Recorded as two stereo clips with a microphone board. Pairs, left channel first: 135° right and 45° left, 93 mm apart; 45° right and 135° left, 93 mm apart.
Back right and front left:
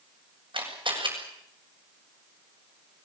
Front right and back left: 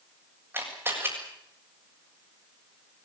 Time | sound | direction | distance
0.5 | a camera shutter | 70° left | 7 m